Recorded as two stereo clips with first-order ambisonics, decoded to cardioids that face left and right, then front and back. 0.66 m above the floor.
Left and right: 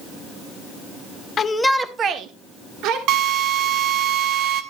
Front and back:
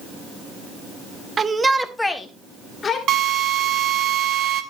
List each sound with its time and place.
1.4 s a shout: 130° left, 0.9 m; by 3.0 s 65° right, 1.7 m
3.1 s a drill: 130° right, 1.8 m